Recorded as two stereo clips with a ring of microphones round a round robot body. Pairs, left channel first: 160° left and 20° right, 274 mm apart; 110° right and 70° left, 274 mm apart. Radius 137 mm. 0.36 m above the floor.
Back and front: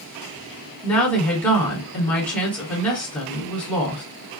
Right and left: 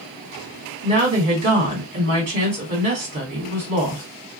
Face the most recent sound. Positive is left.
turn(degrees=75)